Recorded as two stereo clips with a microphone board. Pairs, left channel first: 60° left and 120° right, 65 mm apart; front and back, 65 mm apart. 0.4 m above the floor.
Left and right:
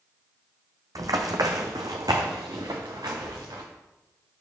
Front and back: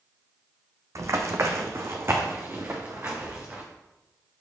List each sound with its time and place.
0.9 s running footsteps: 145° right, 1.2 m; by 3.6 s 120° right, 2.5 m